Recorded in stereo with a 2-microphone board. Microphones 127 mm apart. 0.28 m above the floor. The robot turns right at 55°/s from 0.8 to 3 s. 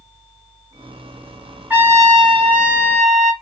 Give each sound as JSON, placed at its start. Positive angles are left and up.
{"t": 1.7, "sound": "a trumpet", "azimuth_deg": -165, "distance_m": 1.4}